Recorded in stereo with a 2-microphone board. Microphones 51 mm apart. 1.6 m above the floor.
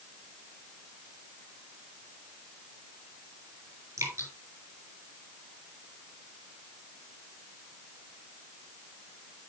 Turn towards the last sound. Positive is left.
turn(degrees=-80)